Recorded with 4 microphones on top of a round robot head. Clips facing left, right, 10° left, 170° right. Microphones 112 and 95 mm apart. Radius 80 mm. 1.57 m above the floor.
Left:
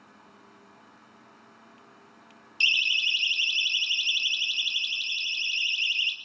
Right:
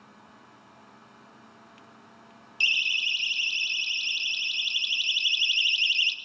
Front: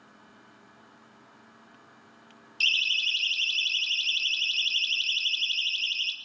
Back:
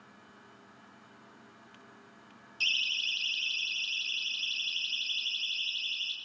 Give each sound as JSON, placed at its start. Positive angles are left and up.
{"t": 2.6, "sound": "a siren", "azimuth_deg": 30, "distance_m": 4.0}